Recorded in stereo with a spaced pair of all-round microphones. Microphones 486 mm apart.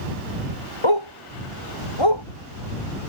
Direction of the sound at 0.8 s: 70° left (ahead or behind).